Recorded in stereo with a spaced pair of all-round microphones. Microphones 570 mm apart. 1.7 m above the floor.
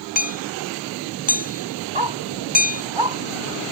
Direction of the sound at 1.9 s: 55° right (ahead or behind).